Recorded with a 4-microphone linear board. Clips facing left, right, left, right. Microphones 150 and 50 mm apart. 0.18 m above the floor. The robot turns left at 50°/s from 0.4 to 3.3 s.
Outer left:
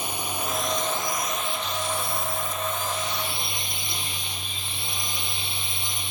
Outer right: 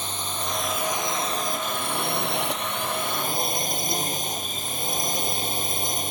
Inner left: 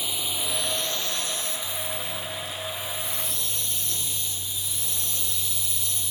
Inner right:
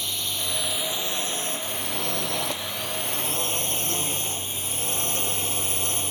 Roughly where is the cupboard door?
No cupboard door in this recording.